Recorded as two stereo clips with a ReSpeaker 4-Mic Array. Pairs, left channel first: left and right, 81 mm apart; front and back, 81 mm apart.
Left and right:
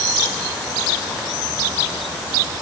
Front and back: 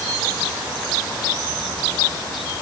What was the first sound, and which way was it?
Only background noise.